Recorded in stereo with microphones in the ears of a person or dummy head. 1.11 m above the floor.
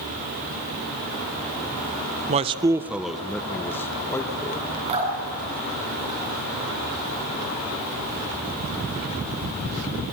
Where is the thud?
No thud in this recording.